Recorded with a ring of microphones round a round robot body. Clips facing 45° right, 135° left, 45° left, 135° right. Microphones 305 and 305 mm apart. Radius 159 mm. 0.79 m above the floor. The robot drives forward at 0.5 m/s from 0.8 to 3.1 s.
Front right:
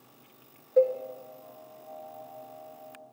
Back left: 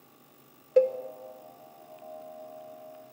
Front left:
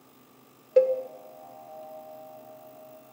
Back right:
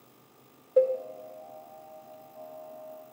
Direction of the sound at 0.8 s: 90° left.